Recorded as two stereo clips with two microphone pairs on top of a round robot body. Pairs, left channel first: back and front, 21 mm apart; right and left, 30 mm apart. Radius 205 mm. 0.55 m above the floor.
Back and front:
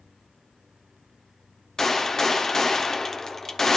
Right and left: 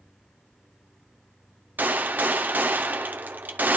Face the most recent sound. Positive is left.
turn(degrees=105)